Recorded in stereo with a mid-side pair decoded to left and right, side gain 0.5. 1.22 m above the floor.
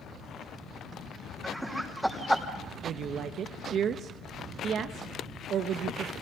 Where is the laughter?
10° right, 6 m.